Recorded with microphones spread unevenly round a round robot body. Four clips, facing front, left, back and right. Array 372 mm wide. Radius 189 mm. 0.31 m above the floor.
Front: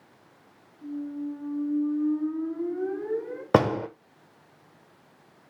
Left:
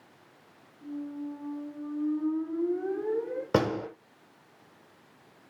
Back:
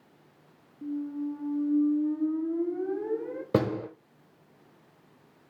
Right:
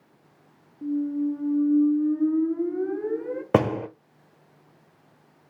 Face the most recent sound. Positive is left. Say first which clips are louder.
# right 5 dB, front 5 dB
turn(degrees=-85)